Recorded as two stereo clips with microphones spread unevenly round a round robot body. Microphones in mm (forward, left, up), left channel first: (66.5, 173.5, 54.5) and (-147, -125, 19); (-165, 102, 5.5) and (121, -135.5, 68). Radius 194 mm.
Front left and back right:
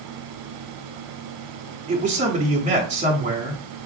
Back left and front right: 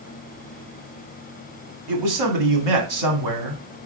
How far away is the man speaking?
About 1.5 m.